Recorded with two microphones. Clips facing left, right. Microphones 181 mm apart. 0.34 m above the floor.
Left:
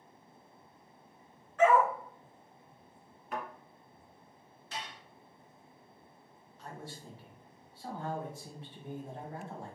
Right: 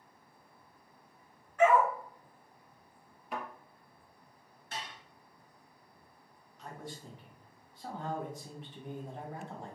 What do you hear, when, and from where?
1.6 s a dog barking: 10° right (ahead or behind), 1.6 m
3.3 s a thud: 10° right (ahead or behind), 1.7 m
4.7 s dishes clattering: 60° right (ahead or behind), 1.5 m
6.6 s a man speaking: 15° right (ahead or behind), 1.8 m